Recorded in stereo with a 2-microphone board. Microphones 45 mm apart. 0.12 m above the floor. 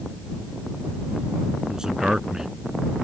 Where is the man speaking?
15° right (ahead or behind).